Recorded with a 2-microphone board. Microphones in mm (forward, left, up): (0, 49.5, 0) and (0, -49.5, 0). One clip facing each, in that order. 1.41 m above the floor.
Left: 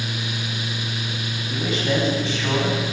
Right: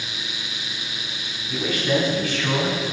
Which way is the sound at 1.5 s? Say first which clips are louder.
Right 1 dB; 25° left (ahead or behind).